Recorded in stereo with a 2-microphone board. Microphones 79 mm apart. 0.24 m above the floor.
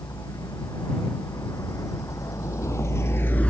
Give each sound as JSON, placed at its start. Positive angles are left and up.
{"t": 0.0, "sound": "a vehicle", "side_deg": 45}